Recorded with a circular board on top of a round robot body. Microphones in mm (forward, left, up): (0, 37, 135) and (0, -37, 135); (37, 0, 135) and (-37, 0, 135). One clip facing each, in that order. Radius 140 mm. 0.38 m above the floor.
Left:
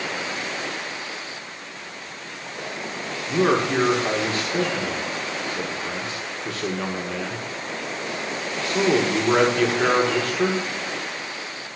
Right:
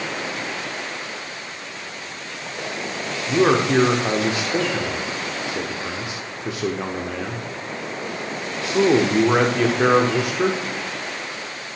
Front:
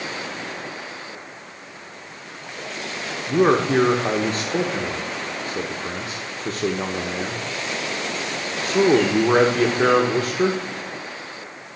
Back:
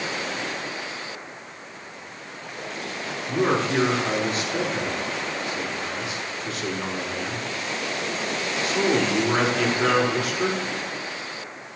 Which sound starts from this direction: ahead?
A man speaking, at 3.3 s.